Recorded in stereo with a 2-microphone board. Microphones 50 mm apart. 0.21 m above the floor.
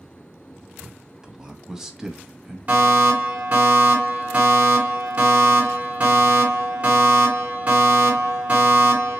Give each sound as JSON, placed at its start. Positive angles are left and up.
{"t": 0.8, "sound": "a man speaking", "side_deg": -15, "distance_m": 1.0}
{"t": 2.7, "sound": "a fire alarm", "side_deg": -35, "distance_m": 3.5}